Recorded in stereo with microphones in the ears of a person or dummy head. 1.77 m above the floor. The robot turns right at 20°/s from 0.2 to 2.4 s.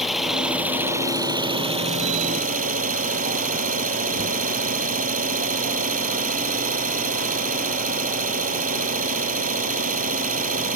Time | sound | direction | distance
0.0 | an engine running | 175° right | ?